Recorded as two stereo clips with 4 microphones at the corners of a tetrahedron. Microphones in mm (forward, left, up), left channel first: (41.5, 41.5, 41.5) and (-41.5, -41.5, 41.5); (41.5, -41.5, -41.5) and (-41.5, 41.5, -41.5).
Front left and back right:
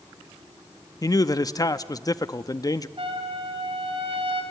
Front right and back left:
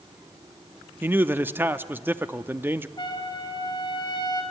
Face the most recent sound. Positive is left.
turn(degrees=-100)